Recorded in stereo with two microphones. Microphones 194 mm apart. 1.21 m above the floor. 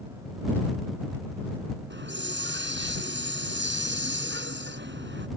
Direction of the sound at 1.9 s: 70° right (ahead or behind).